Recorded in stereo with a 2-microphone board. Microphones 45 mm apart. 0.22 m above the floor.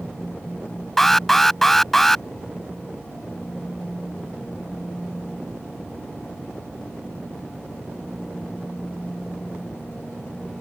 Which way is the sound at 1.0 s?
5° left (ahead or behind).